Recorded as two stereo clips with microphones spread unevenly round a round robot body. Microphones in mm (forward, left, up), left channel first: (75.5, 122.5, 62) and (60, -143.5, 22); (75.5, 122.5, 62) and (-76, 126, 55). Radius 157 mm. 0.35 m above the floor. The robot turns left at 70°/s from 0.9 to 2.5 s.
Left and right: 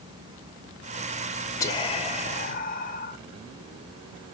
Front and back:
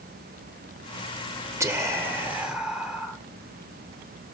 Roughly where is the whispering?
Behind.